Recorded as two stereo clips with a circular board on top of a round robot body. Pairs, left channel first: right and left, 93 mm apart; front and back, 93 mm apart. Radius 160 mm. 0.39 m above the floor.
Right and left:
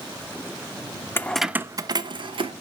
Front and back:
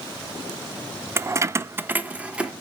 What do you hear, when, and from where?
1.2 s keys jangling: 140° right, 0.6 m; by 2.5 s 100° left, 1.0 m